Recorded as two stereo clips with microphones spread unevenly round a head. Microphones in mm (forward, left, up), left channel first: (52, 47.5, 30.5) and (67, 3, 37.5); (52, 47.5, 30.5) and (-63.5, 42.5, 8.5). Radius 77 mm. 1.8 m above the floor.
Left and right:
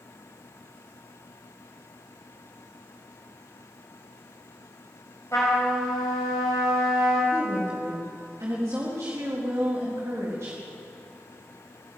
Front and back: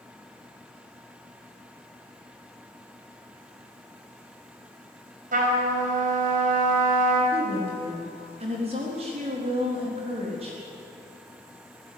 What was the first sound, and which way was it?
A trumpet, 175° left.